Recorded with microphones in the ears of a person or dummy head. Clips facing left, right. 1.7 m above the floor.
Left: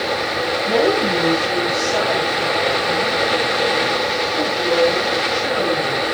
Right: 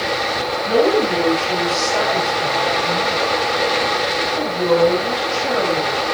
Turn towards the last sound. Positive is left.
turn(degrees=-30)  # may be behind; listen again after turning